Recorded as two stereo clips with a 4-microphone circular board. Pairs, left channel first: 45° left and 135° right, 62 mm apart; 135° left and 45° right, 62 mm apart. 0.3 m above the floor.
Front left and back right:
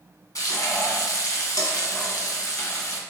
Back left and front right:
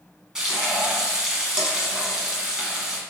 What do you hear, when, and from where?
0.3 s frying: 35° left, 0.9 m